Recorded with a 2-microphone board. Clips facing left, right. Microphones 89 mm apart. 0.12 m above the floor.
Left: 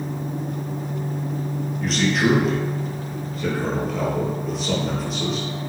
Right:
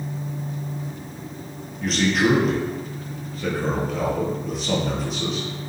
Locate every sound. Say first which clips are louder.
1.8 s a man speaking: right 1 dB; centre (ahead or behind), 2 m